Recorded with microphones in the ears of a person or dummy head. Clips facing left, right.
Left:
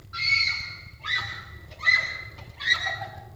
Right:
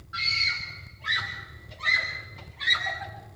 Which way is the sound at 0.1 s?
10° right (ahead or behind).